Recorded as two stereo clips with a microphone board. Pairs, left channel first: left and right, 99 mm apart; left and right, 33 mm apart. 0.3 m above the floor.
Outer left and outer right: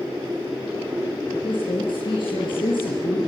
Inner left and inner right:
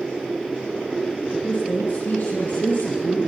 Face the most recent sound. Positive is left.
turn(degrees=55)  # may be behind; listen again after turning